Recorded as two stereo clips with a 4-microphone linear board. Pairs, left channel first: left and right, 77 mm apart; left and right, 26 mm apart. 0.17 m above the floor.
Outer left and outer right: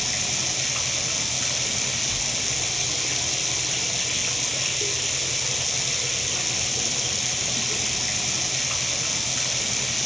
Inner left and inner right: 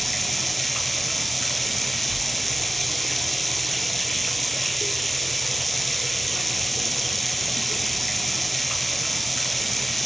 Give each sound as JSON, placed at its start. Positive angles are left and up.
{"t": 0.0, "sound": "running water", "side_deg": 0, "distance_m": 1.0}